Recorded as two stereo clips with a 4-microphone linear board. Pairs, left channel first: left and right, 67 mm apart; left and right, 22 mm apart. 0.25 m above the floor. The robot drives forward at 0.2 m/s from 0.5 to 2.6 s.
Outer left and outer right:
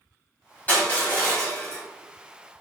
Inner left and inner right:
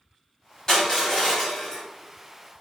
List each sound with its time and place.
0.7 s crushing: 30° left (ahead or behind), 1.7 m; by 1.8 s 25° left (ahead or behind), 1.8 m